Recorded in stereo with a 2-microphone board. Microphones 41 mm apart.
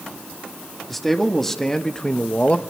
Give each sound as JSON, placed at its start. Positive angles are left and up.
{"t": 0.9, "sound": "a man speaking", "side_deg": 5, "distance_m": 2.0}